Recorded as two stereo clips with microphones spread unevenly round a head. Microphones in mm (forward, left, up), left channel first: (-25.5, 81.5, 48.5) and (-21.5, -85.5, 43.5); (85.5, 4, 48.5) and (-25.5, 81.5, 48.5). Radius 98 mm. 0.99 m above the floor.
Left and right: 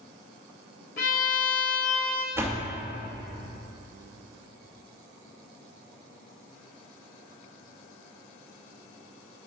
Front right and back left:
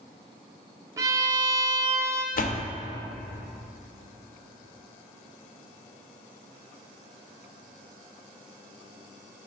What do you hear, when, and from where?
1.0 s a violin: 90° left, 0.6 m
2.4 s a door slam: 10° right, 0.8 m